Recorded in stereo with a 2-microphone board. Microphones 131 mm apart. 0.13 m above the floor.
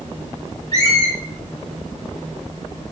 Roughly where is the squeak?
Left.